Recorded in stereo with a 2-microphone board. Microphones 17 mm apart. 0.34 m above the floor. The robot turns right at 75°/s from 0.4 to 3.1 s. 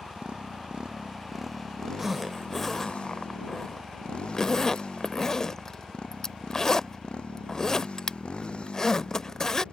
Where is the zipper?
15° right (ahead or behind); by 9.6 s 30° left (ahead or behind).